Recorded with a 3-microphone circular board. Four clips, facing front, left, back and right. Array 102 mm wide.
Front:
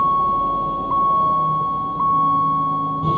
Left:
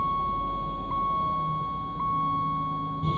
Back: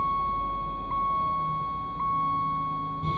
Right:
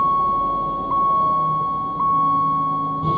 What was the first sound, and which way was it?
A vehicle, 35° right.